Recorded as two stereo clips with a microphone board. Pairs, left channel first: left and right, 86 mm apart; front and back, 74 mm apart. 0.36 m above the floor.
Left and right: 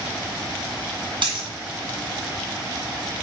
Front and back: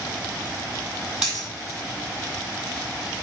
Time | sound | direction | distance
1.2 | a dropped coin | 105° right | 1.2 m